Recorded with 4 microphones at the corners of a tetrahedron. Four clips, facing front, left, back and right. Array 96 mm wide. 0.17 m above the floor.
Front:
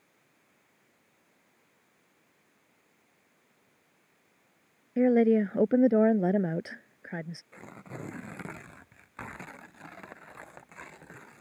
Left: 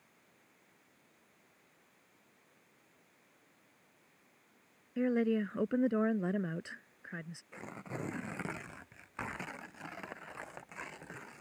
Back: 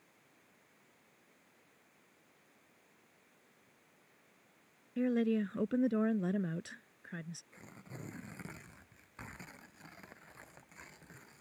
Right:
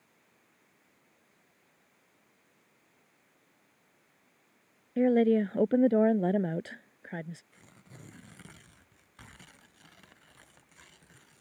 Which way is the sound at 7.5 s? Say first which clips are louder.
Left 12 dB, front 8 dB; 50° left.